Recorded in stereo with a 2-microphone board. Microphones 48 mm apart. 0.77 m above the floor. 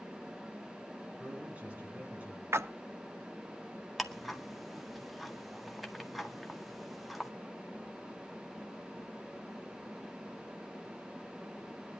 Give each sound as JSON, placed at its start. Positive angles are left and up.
{"t": 1.2, "sound": "a man speaking", "side_deg": -30, "distance_m": 8.5}
{"t": 2.5, "sound": "a splash", "side_deg": -65, "distance_m": 0.7}
{"t": 4.0, "sound": "ticking", "side_deg": 0, "distance_m": 1.7}